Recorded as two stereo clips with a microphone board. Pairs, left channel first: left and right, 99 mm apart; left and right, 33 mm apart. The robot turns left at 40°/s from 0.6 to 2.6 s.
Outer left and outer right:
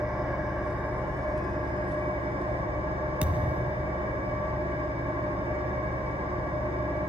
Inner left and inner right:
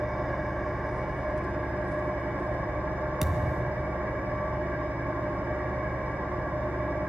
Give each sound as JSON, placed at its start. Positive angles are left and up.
{"t": 0.0, "sound": "an engine running", "azimuth_deg": -5, "distance_m": 8.0}
{"t": 3.2, "sound": "a thud", "side_deg": -10, "distance_m": 1.2}